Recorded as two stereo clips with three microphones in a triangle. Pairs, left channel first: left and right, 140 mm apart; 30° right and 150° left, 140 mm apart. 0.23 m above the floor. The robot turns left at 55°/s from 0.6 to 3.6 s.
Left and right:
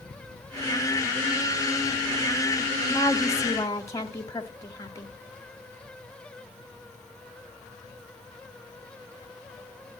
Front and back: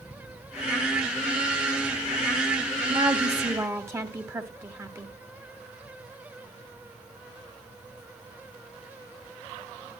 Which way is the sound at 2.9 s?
145° left.